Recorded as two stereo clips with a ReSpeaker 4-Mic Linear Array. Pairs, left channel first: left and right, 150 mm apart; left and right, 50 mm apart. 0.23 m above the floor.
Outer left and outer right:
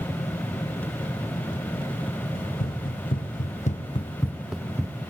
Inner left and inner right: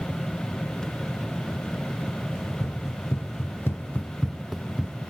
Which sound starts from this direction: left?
Running footsteps, at 2.4 s.